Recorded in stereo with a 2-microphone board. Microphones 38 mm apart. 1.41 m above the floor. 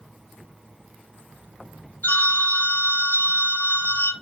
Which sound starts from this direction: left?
A phone ringing, at 2.0 s.